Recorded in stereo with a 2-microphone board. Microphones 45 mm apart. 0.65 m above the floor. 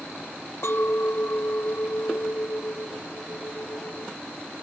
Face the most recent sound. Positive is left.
turn(degrees=70)  # may be behind; listen again after turning